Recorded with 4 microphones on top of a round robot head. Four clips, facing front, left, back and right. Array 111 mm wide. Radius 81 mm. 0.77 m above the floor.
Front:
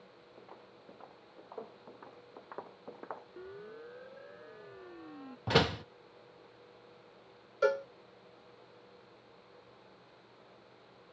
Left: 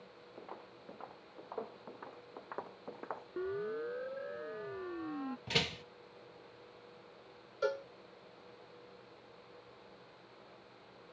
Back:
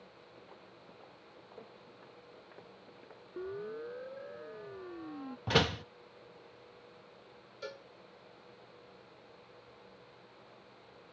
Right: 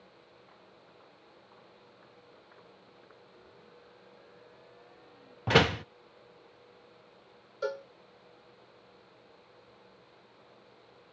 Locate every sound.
0.4 s footsteps: 80° left; by 3.3 s 45° left
3.4 s a siren: 115° left; by 5.4 s 110° left
5.5 s a door slam: 75° right
7.6 s a cowbell: 5° right